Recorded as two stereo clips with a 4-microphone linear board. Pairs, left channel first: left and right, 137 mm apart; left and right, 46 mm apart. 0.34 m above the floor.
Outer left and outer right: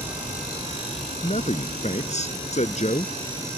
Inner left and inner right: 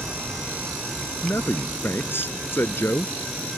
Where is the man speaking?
60° left (ahead or behind).